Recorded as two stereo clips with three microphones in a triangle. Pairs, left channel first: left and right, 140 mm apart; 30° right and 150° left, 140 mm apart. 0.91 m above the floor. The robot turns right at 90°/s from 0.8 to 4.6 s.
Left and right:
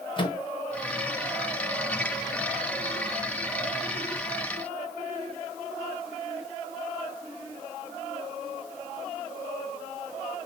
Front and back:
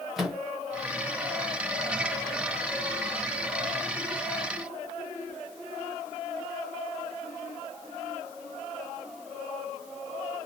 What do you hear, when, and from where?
0.2 s a microwave: 65° left, 0.6 m